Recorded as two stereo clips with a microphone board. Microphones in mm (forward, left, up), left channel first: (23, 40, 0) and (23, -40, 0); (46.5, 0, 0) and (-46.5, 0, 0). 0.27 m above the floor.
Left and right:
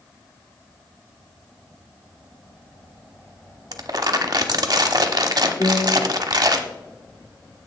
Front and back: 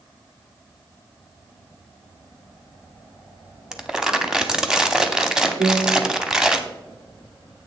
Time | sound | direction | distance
3.7 | crumpling | 100° right | 0.9 m
5.6 | a piano | 155° left | 0.9 m